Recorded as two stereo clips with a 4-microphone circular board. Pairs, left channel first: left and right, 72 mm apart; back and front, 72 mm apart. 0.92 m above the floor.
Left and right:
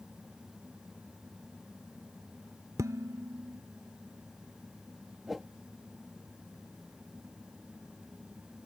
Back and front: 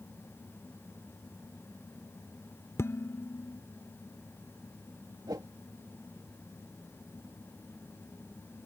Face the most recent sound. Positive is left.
turn(degrees=0)